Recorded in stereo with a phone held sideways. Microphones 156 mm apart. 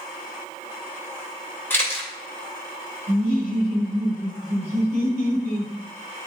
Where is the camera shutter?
15° left (ahead or behind), 2.5 m.